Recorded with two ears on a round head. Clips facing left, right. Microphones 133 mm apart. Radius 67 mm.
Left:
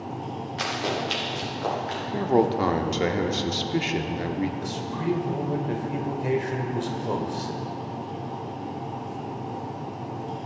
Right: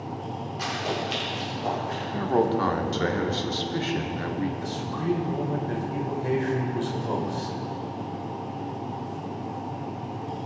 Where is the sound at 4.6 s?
20° left (ahead or behind), 1.9 m.